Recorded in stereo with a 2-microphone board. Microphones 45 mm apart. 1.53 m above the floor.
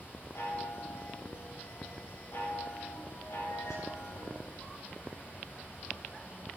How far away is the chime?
About 7.5 m.